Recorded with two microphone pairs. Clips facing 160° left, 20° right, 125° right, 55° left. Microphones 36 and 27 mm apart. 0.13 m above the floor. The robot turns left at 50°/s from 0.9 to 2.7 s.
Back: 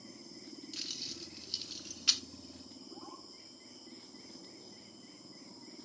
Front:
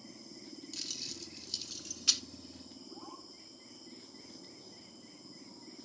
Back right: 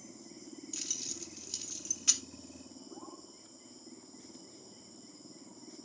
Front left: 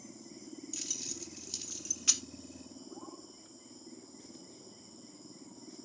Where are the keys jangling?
175° left, 0.8 m; by 2.2 s 110° left, 0.8 m.